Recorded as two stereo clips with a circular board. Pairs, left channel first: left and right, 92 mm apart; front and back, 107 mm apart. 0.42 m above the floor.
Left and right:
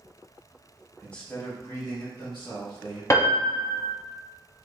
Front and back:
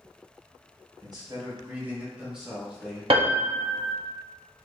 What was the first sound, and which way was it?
A man speaking, 170° left.